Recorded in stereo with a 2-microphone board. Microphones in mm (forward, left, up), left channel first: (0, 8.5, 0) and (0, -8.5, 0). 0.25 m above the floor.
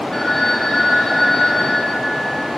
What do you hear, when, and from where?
0.1 s a phone ringing: 40° left (ahead or behind), 3 m